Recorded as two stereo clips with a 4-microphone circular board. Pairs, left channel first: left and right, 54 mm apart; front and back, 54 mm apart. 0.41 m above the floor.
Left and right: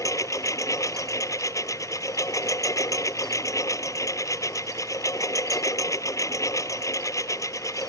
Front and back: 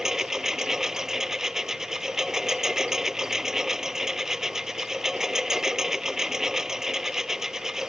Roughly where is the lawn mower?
Left.